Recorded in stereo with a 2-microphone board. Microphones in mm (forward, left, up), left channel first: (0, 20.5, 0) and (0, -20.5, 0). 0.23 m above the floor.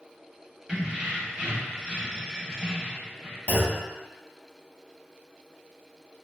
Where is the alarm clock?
I don't hear an alarm clock.